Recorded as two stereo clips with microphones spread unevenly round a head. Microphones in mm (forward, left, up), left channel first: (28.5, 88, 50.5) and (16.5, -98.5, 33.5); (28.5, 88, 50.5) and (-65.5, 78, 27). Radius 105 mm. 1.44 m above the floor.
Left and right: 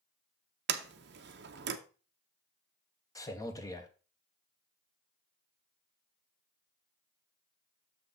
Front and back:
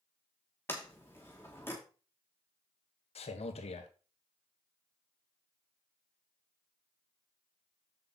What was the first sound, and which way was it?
A sliding door, 65° right.